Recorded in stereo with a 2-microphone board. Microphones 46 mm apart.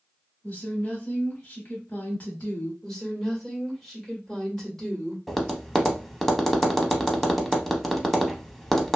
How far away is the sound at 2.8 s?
About 1.6 m.